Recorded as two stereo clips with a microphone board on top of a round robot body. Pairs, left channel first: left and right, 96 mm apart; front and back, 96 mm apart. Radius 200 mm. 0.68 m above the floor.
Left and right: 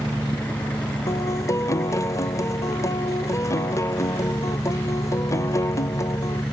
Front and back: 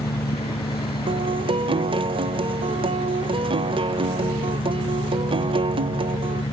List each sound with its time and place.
0.0 s an engine running: 10° left
1.1 s a guitar: 150° left